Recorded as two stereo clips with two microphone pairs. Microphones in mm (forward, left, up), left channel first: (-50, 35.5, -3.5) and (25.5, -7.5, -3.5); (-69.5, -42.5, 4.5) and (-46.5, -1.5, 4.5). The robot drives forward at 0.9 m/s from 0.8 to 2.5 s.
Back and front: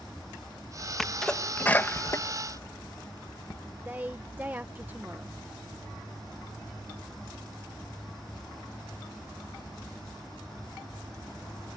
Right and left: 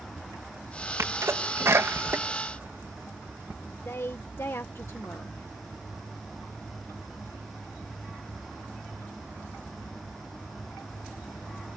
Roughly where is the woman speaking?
Right.